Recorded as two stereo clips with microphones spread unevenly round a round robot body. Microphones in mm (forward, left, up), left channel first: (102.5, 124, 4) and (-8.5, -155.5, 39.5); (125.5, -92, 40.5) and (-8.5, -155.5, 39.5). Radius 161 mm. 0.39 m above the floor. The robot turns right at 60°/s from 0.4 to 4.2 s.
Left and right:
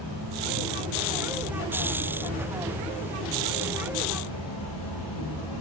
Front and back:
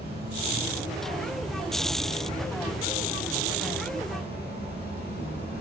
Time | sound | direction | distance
0.0 | an insect | 175° right | 4.5 m